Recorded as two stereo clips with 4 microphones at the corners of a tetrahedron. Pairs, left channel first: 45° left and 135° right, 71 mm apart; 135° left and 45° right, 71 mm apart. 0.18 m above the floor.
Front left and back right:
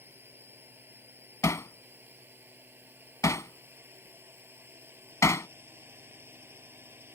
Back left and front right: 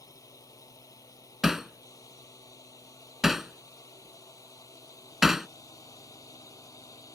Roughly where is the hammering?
Ahead left.